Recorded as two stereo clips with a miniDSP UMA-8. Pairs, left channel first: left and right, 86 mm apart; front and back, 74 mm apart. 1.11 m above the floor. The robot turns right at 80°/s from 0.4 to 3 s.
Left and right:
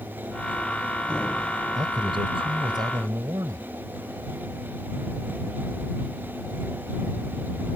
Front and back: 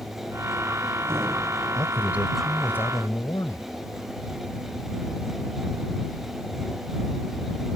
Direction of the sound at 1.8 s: 140° right.